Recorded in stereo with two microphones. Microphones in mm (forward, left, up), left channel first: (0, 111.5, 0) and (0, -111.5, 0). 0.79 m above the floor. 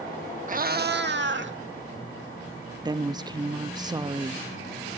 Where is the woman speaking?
20° right (ahead or behind), 0.9 m.